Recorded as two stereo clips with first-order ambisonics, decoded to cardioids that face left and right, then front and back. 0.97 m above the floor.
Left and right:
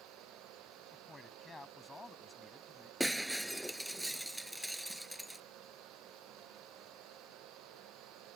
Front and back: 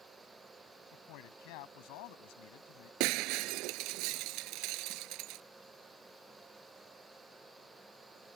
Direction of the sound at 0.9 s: 10° left.